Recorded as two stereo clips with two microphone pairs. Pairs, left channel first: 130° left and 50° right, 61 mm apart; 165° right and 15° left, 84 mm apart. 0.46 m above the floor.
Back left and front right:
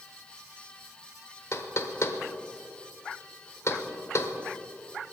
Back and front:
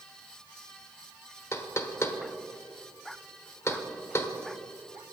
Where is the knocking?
150° left, 1.1 m.